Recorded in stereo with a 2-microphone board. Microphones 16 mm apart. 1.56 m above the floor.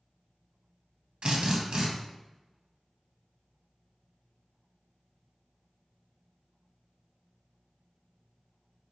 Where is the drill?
75° right (ahead or behind), 0.8 m.